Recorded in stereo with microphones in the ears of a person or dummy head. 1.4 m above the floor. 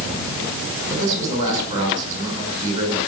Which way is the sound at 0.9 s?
40° right (ahead or behind).